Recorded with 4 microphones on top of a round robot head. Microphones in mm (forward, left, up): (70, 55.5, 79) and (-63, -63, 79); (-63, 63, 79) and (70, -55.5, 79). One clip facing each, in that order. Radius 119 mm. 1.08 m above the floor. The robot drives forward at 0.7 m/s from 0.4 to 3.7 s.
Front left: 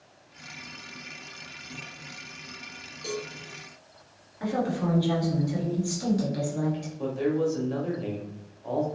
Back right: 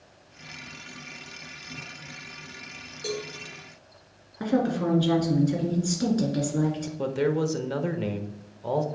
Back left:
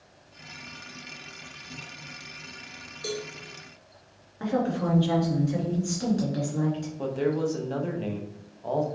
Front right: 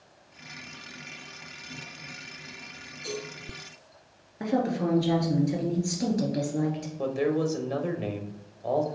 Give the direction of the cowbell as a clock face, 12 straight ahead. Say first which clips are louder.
Back right 2 dB, back left 2 dB; 7 o'clock.